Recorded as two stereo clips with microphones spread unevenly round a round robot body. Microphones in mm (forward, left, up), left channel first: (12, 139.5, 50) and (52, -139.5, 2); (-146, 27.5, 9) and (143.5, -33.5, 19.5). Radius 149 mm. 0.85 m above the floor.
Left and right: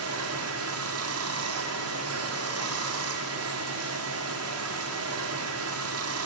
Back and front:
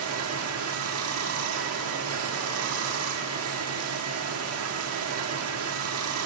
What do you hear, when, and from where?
0.0 s running water: 55° right, 2.0 m